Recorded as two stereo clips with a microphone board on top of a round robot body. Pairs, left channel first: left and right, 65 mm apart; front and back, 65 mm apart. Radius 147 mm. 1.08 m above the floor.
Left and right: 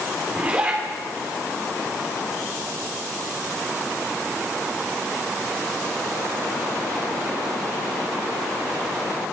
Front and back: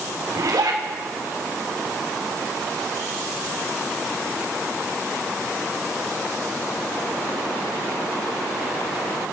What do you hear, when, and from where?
0.3 s a zipper: 160° right, 4 m